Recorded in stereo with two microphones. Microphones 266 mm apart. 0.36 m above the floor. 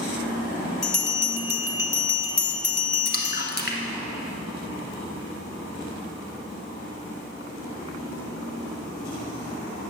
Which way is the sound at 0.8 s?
60° left (ahead or behind).